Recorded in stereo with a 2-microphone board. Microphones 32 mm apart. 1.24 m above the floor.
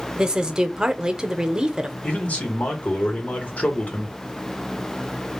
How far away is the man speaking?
About 1.1 m.